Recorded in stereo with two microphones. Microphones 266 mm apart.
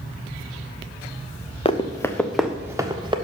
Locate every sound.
1.6 s running footsteps: 20° left (ahead or behind), 1.1 m; by 3.1 s 20° right (ahead or behind), 1.4 m